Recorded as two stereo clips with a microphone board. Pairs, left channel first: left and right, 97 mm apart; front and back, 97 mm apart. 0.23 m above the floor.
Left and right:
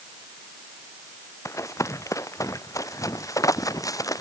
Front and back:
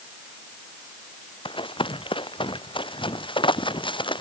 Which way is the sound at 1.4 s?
30° left.